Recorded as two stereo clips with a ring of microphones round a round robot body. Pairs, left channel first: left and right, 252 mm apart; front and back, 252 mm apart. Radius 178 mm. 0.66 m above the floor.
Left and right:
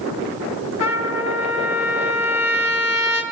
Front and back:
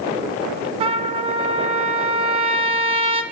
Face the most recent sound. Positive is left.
turn(degrees=110)